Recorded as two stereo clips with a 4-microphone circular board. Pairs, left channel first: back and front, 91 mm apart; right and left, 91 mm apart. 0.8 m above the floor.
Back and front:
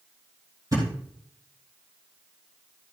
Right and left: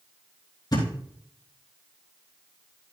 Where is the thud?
50° right, 4 m.